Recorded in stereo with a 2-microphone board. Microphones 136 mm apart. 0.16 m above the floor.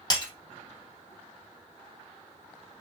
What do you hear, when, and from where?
0.1 s breaking glass: 30° left (ahead or behind), 1.9 m